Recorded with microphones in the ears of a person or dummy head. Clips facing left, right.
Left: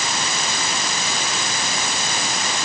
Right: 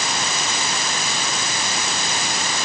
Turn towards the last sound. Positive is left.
No sound to turn to.